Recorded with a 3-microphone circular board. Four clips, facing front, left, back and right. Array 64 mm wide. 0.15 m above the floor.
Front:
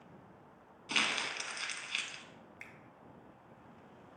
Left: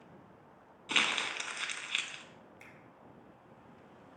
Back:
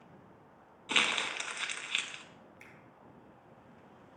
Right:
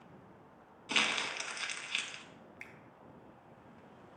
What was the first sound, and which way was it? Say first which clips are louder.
Crumpling: left 1 dB, back 3 dB; 150° left.